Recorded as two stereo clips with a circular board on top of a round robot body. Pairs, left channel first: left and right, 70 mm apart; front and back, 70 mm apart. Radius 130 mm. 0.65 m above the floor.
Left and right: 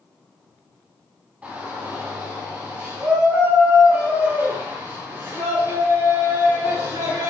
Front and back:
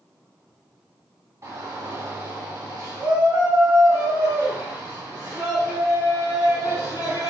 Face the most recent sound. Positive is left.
turn(degrees=-120)